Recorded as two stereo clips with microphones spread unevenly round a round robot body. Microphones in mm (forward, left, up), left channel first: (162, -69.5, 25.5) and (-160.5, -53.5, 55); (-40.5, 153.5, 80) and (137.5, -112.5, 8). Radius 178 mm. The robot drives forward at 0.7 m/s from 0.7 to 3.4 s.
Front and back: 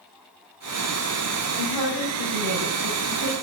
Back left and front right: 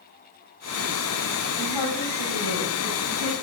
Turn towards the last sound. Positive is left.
turn(degrees=165)